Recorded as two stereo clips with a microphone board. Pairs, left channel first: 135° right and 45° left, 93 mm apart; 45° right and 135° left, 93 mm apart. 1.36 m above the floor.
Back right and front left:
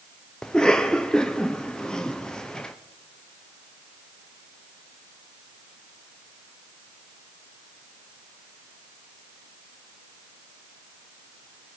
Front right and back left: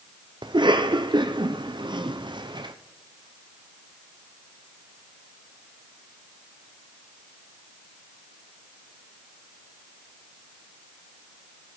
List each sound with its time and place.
0.4 s a cough: 145° left, 0.6 m